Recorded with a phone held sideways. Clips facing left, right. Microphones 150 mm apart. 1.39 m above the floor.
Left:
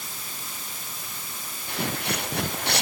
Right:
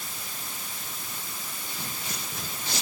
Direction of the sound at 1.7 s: 70° left (ahead or behind).